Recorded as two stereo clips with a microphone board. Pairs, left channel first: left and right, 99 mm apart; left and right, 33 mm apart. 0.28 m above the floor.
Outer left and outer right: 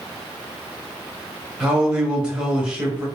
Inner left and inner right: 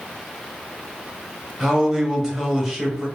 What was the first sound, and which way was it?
A man speaking, 10° right (ahead or behind).